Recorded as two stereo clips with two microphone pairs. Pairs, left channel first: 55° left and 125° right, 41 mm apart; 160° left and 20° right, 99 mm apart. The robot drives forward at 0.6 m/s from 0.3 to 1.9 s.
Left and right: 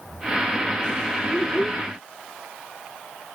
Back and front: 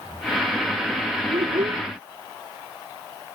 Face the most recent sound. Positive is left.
turn(degrees=-10)